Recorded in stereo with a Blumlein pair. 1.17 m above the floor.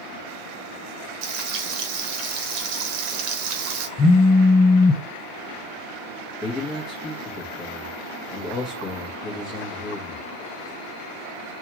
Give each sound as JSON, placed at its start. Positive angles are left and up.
{"t": 1.2, "sound": "frying", "azimuth_deg": -40, "distance_m": 1.2}
{"t": 4.0, "sound": "a phone buzzing", "azimuth_deg": 25, "distance_m": 0.6}
{"t": 6.4, "sound": "a man speaking", "azimuth_deg": 25, "distance_m": 1.4}